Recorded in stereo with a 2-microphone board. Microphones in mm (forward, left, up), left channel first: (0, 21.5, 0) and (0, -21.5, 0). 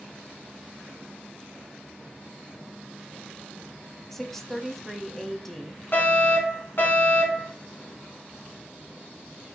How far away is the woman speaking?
About 1.1 m.